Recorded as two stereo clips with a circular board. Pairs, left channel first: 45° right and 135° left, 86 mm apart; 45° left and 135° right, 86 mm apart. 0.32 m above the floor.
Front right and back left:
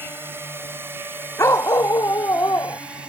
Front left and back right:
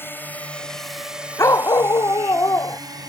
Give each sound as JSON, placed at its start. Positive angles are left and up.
{"t": 0.0, "sound": "a drone", "azimuth_deg": 90}
{"t": 1.4, "sound": "a dog barking", "azimuth_deg": 0}